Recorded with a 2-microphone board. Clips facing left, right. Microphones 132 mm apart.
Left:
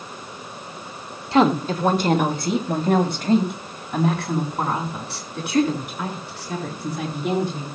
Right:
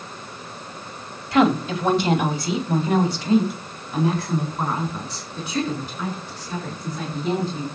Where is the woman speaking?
25° left (ahead or behind), 1.3 m; by 7.7 s 70° left (ahead or behind), 7 m.